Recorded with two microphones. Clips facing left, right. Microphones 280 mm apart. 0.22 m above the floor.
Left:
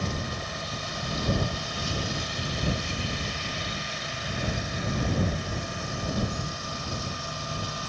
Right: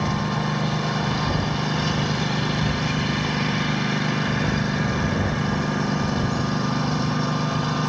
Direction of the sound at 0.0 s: 70° right (ahead or behind).